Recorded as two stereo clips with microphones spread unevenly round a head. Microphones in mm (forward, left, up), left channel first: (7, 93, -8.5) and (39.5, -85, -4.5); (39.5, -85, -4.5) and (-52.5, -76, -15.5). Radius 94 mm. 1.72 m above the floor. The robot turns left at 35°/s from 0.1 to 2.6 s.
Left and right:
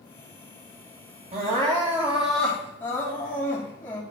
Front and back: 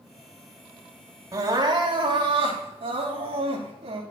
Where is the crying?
135° right, 2.5 m; by 4.0 s straight behind, 2.5 m.